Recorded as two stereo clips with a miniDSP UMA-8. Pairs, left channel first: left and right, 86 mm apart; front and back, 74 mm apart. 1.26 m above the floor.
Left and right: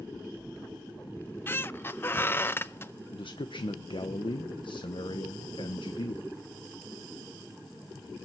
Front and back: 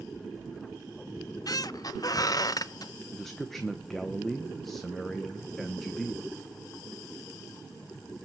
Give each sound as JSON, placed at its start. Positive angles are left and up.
{"t": 1.2, "sound": "a squeak", "azimuth_deg": 25, "distance_m": 0.6}
{"t": 3.1, "sound": "a man speaking", "azimuth_deg": 85, "distance_m": 1.0}